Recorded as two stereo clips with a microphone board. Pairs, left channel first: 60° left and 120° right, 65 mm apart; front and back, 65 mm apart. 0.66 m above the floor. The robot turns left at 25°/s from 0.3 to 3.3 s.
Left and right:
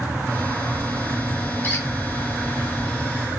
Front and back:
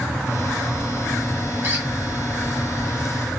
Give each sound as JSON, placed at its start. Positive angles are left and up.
{"t": 1.6, "sound": "a squeak", "azimuth_deg": 120, "distance_m": 4.0}